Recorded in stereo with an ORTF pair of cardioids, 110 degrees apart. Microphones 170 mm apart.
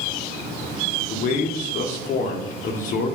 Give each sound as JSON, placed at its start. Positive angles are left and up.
{"t": 1.1, "sound": "a man speaking", "azimuth_deg": 50, "distance_m": 0.8}